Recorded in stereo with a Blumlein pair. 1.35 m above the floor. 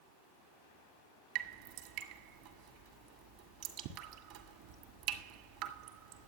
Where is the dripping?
45° right, 1.8 m.